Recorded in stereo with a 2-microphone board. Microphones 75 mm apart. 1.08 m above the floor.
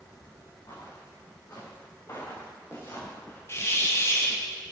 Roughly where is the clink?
I don't hear a clink.